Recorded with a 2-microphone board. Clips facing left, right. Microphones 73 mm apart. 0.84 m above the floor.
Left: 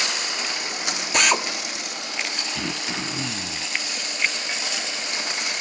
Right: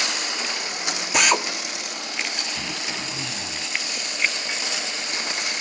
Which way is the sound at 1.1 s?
5° right (ahead or behind).